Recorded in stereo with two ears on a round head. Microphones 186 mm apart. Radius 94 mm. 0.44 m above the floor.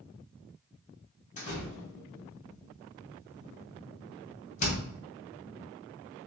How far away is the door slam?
About 2 m.